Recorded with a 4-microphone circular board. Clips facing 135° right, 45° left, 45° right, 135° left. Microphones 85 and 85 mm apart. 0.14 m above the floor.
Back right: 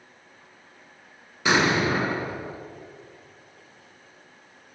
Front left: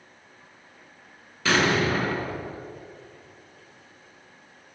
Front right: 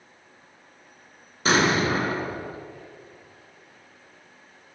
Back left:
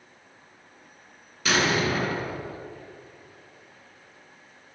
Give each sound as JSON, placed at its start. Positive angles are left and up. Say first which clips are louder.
{"t": 1.4, "sound": "an explosion", "louder": "back right 1 dB, front right 3 dB", "azimuth_deg": -75, "distance_m": 1.1}